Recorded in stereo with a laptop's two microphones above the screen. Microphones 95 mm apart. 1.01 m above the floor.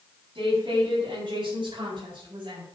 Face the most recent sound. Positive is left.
turn(degrees=-65)  # may be behind; listen again after turning